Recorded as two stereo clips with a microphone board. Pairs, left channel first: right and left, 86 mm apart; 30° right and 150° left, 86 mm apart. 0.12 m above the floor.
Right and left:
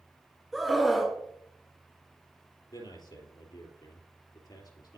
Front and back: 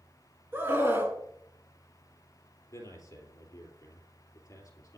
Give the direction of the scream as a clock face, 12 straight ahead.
6 o'clock.